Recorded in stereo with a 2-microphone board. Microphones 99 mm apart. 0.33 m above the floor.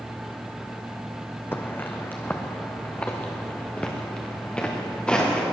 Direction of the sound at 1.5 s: 20° left (ahead or behind).